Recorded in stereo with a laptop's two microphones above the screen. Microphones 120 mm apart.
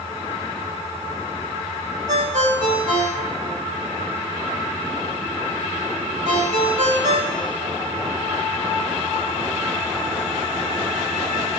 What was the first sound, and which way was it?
A ringtone, 85° right.